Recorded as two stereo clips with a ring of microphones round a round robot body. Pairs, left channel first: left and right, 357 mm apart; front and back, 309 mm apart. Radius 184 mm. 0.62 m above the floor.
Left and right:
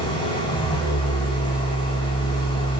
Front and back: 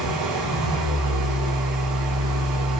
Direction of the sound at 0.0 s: 165° left.